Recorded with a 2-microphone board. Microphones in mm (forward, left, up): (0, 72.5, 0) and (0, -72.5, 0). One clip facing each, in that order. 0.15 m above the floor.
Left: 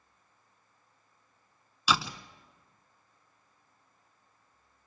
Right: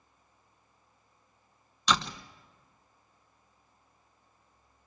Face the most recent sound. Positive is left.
turn(degrees=5)  # may be behind; listen again after turning